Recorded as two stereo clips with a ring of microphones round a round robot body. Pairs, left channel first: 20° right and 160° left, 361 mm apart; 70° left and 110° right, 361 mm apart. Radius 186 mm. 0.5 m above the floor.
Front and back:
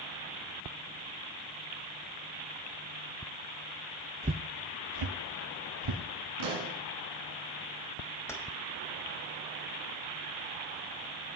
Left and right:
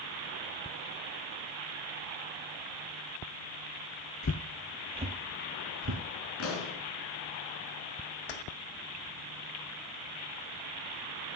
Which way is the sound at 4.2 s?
95° left.